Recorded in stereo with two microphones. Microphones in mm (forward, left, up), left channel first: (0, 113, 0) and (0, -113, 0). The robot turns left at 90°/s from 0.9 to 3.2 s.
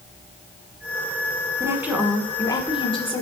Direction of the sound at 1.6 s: 15° right (ahead or behind).